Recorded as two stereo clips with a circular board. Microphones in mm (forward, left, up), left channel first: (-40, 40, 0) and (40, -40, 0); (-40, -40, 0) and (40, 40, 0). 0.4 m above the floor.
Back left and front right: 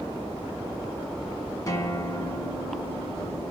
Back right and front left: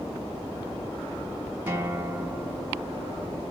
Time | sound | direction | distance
1.7 | a guitar | 105° left | 1.3 m